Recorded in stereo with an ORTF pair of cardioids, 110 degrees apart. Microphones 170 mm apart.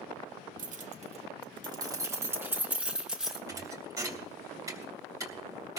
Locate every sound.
0.6 s keys jangling: 55° right, 1.3 m; by 3.4 s straight ahead, 2.5 m
3.5 s a thud: 20° right, 3 m